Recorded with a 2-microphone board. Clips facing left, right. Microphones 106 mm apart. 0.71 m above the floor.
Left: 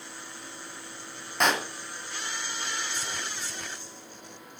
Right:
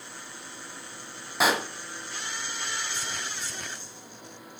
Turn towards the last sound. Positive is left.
turn(degrees=-5)  # may be behind; listen again after turning